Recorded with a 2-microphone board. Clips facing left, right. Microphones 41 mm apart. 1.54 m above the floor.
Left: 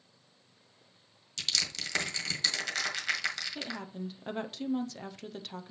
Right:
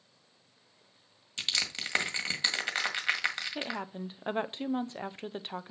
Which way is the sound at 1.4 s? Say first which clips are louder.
Right 1 dB; 30° right (ahead or behind).